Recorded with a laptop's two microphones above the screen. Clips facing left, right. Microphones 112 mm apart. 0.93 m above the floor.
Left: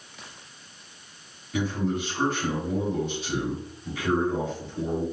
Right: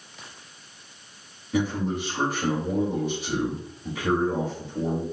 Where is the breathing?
I don't hear breathing.